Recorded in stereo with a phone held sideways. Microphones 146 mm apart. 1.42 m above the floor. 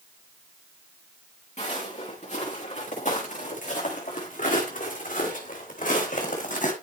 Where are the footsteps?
55° left (ahead or behind), 5 m; by 6.7 s 65° left (ahead or behind), 3.5 m.